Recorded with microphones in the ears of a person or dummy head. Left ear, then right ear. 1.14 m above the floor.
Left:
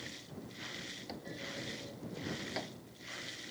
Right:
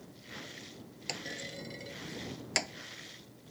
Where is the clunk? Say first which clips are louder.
Right 4 dB; 65° right (ahead or behind).